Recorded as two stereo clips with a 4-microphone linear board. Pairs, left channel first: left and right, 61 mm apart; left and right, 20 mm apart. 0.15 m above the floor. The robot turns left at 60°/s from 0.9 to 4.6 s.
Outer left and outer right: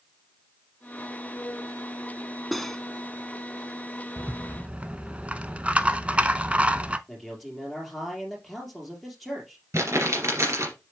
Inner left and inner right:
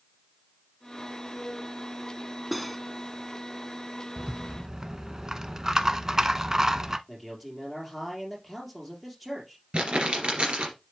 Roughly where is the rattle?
Right.